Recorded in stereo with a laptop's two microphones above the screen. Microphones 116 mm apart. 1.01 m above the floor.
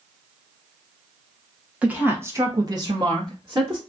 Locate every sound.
1.8 s a woman speaking: 10° right (ahead or behind), 0.8 m; by 3.8 s 40° right (ahead or behind), 1.0 m